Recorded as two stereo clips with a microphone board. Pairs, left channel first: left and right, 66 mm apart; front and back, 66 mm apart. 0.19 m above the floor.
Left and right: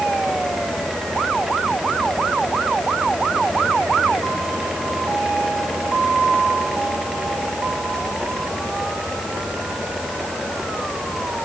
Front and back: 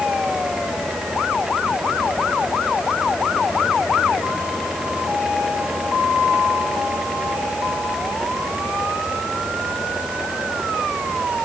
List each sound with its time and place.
Only background noise.